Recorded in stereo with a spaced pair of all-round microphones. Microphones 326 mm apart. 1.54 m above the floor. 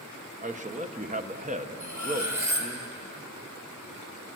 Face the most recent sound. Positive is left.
turn(degrees=60)  # may be behind; listen again after turning